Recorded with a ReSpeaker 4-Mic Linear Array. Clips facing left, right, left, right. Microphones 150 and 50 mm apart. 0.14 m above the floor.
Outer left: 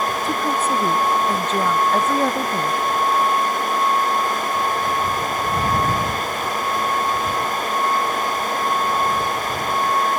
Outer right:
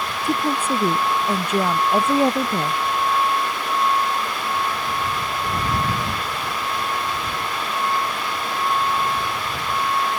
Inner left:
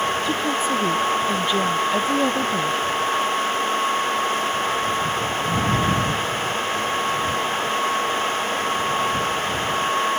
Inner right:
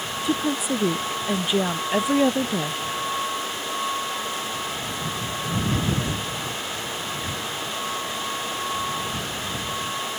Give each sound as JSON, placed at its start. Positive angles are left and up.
{"t": 0.2, "sound": "a woman speaking", "side_deg": -10}